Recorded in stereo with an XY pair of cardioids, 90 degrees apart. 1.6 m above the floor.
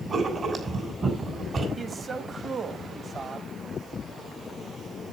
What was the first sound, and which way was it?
Writing, 50° right.